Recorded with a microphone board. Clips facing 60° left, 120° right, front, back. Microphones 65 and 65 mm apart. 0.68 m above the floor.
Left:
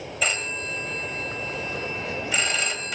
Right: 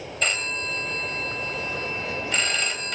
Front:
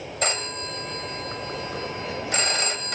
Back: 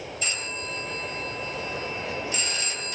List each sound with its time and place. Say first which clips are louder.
0.2 s a phone ringing: right 1 dB, front 6 dB; 25° right, 2 m